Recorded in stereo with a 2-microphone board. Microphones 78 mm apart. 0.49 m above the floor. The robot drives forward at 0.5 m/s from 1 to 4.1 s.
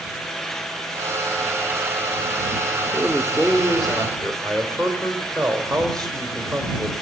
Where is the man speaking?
10° left (ahead or behind), 1.0 m; by 6.9 s 5° left (ahead or behind), 1.4 m.